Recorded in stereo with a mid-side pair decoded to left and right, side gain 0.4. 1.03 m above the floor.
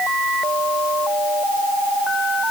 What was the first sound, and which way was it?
Only background noise.